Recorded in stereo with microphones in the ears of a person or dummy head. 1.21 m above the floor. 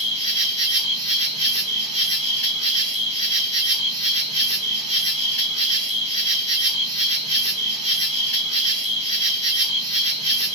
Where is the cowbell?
I don't hear a cowbell.